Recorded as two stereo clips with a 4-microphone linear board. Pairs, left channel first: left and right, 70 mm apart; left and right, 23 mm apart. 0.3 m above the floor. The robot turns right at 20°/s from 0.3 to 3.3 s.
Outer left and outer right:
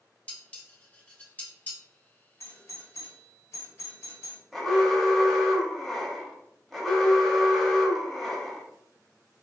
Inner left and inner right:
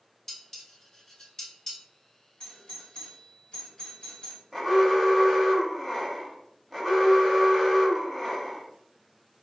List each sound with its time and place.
0.3 s dishes clattering: 20° left (ahead or behind), 0.7 m
2.4 s a doorbell: 45° left (ahead or behind), 1.7 m; by 4.4 s 40° left (ahead or behind), 1.7 m
4.5 s an alarm: 5° left (ahead or behind), 0.7 m